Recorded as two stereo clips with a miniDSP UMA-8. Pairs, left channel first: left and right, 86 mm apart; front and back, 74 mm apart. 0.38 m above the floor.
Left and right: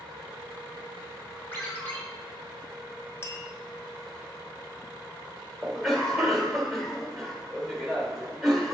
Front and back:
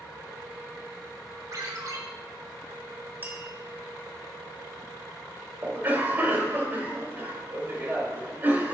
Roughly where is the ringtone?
Behind left.